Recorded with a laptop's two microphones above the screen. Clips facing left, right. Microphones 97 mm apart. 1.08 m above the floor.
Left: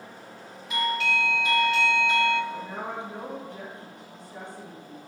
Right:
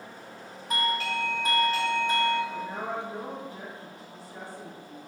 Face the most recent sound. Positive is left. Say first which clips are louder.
# right 1 dB
turn(degrees=-5)  # may be behind; listen again after turning